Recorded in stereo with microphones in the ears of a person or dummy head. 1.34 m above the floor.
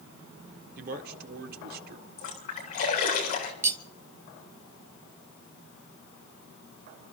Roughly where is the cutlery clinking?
Centre.